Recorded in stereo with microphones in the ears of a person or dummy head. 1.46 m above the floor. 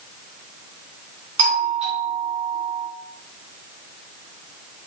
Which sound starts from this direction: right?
A doorbell, at 1.4 s.